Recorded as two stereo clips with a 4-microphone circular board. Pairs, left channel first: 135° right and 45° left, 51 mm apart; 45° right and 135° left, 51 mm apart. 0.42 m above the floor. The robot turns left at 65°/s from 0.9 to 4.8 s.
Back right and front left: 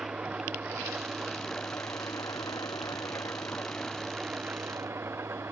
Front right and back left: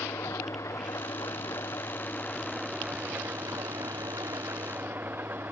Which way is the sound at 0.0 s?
20° right.